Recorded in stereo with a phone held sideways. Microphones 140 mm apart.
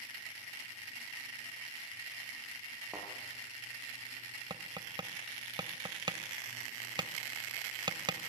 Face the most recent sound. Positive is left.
turn(degrees=-35)  # may be behind; listen again after turning